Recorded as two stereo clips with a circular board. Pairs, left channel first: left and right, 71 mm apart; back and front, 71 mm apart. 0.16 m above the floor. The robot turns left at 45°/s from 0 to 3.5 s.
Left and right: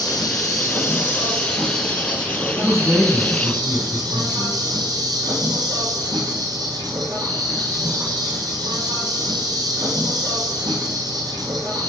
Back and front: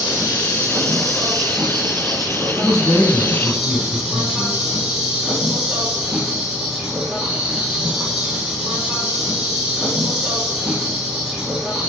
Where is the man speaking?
175° right, 2.5 m; by 4.6 s 140° left, 2.5 m.